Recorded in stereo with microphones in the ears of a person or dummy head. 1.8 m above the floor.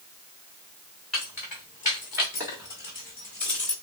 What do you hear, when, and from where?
1.1 s keys jangling: centre (ahead or behind), 0.8 m; by 3.7 s 15° right (ahead or behind), 1.4 m